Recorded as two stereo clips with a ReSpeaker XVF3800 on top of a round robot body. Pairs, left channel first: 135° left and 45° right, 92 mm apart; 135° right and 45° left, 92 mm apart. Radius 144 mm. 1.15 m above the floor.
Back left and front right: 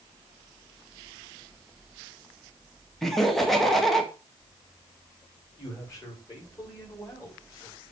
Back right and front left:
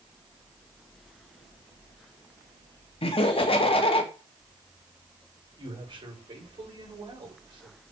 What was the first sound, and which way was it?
Laughter, 135° right.